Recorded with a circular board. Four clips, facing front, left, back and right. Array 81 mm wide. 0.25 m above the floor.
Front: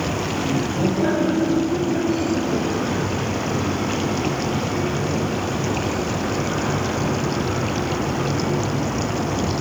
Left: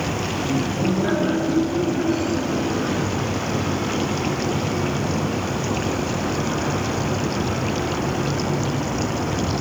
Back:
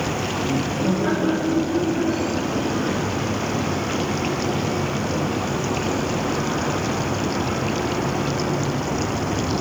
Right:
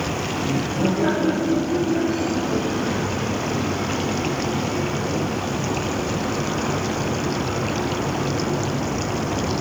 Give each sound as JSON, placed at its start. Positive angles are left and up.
{"t": 0.4, "sound": "laughter", "azimuth_deg": -80, "distance_m": 6.5}